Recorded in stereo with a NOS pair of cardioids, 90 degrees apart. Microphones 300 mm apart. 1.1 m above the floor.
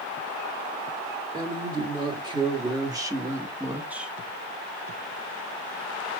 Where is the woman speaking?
15° right, 2.5 m; by 4.1 s straight ahead, 0.9 m.